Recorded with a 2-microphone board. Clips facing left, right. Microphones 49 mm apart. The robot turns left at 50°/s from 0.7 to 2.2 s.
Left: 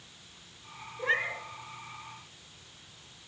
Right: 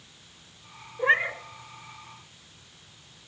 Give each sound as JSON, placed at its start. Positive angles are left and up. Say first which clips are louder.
{"t": 1.0, "sound": "a cat meowing", "louder": "right 7 dB", "side_deg": -30, "distance_m": 0.8}